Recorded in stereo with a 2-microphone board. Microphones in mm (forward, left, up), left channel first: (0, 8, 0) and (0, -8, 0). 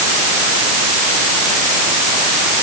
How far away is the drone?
No drone in this recording.